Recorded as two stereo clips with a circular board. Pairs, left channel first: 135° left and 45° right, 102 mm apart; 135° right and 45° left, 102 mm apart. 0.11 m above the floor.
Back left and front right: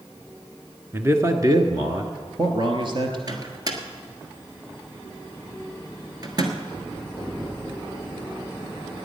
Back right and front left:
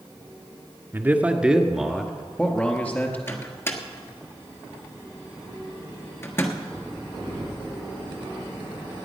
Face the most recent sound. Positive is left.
turn(degrees=-80)